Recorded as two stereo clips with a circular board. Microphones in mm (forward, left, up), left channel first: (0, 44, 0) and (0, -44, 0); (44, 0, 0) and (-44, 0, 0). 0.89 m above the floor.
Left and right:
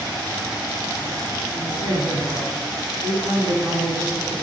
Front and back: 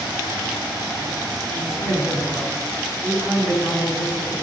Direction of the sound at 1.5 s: 55° left.